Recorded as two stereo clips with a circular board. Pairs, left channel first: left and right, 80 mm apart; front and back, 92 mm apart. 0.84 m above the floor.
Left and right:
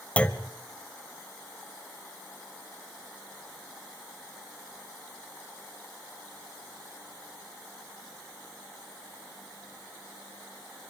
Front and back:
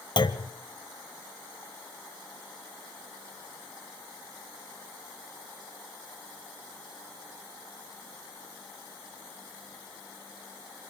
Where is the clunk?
20° left, 1.0 m.